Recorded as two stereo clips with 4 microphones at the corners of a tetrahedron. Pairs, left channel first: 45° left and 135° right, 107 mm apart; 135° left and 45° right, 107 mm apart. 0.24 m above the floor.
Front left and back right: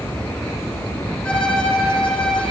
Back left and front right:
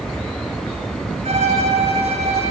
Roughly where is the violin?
Ahead right.